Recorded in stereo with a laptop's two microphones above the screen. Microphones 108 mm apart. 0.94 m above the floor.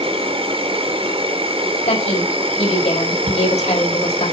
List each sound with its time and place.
0.0 s an insect: 60° right (ahead or behind), 2.0 m
1.9 s a woman speaking: 85° left, 4.5 m
3.3 s ticking: 50° right (ahead or behind), 1.2 m